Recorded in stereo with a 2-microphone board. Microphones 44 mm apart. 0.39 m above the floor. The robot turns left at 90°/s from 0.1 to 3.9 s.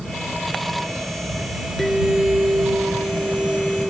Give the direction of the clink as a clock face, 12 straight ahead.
12 o'clock.